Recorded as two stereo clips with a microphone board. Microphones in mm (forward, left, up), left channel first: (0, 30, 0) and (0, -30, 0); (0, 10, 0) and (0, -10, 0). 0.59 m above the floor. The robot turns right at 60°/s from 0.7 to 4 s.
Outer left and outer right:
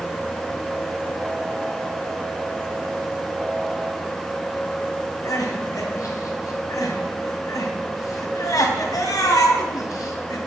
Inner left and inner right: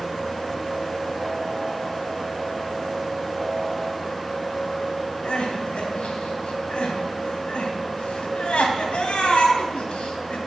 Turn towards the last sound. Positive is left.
turn(degrees=75)  # may be behind; listen again after turning